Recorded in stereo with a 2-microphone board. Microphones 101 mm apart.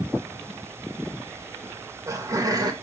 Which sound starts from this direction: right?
Laughter, at 1.6 s.